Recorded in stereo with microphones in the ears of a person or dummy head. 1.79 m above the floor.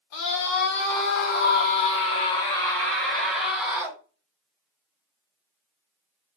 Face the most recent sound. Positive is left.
turn(degrees=-10)  # may be behind; listen again after turning